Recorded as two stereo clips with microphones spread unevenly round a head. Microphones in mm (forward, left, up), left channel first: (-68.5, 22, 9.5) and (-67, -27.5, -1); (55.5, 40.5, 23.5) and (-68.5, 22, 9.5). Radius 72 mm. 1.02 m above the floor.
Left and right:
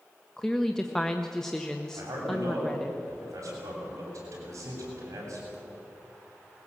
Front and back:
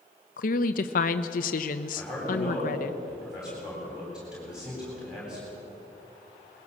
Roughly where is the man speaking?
Right.